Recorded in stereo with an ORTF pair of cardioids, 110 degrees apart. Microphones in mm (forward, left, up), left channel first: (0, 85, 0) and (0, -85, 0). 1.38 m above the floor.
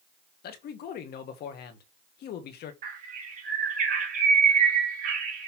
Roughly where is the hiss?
No hiss in this recording.